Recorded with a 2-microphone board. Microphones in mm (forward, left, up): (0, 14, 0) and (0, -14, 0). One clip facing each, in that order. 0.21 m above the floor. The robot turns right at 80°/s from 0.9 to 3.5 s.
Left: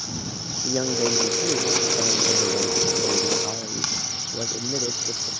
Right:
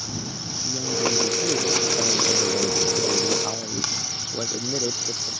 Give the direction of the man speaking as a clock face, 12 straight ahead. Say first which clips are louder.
Left 2 dB; 9 o'clock.